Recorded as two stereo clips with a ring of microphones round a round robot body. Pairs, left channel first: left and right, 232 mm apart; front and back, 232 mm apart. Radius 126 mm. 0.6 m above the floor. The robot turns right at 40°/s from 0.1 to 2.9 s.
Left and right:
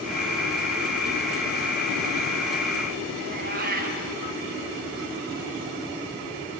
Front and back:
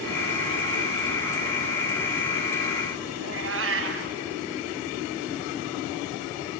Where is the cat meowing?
145° right, 2.5 m.